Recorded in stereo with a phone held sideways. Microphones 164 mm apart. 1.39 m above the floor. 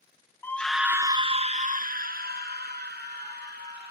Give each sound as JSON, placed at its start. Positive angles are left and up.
{"t": 0.4, "sound": "a scream", "side_deg": 15, "distance_m": 0.6}